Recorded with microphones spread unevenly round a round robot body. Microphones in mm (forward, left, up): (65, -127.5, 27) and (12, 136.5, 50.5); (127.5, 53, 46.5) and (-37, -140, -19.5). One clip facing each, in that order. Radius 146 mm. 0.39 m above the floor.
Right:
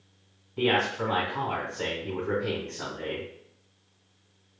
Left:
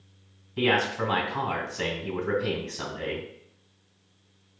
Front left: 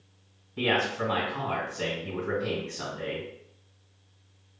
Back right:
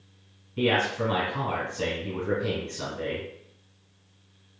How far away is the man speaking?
About 2.5 m.